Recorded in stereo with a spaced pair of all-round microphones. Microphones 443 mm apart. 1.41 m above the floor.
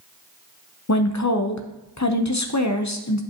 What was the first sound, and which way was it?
A woman speaking, 40° left (ahead or behind).